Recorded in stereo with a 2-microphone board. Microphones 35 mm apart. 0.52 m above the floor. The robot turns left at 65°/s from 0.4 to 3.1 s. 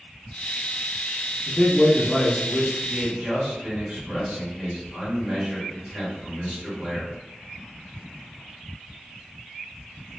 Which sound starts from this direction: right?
A man speaking, at 2.8 s.